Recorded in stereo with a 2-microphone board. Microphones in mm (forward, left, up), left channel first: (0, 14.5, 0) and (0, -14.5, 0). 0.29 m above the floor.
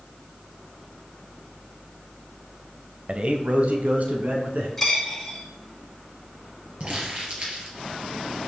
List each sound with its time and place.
3.1 s a man speaking: 30° right (ahead or behind), 1.0 m; by 4.7 s 55° right (ahead or behind), 3 m
4.8 s a dropped coin: 10° left (ahead or behind), 5 m
6.8 s crumpling: 40° right (ahead or behind), 4.5 m